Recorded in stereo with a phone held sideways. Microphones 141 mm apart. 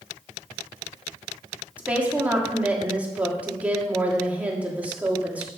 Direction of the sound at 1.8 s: 10° right (ahead or behind).